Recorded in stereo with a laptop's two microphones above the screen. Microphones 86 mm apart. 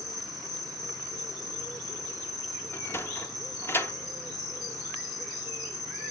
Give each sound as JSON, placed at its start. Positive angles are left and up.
{"t": 0.0, "sound": "an insect", "side_deg": 55, "distance_m": 3.5}
{"t": 2.7, "sound": "a sliding door", "side_deg": 30, "distance_m": 0.9}